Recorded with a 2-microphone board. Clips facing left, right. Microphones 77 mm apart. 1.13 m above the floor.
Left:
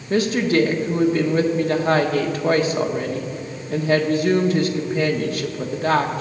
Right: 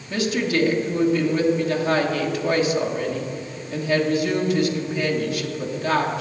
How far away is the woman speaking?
About 1.3 m.